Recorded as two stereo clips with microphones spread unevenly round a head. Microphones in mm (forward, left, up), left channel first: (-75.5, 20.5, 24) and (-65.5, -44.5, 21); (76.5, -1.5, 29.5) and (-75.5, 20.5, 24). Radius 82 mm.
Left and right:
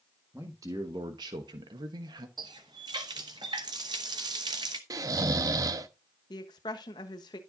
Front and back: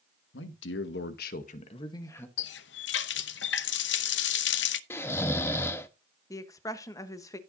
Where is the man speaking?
10° right, 1.5 m; by 2.3 s 85° right, 1.3 m.